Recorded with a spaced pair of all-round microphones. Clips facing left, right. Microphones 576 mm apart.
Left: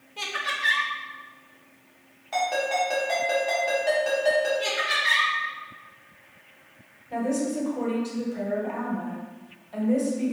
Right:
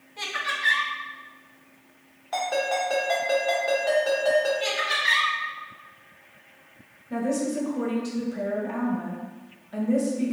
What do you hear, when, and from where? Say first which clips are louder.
0.2 s laughter: left 1 dB; 55° left (ahead or behind), 1.0 m
2.3 s a ringtone: even; 50° left (ahead or behind), 1.7 m
4.6 s laughter: right 1 dB; 70° left (ahead or behind), 1.9 m
7.1 s a woman speaking: even; 40° right (ahead or behind), 1.1 m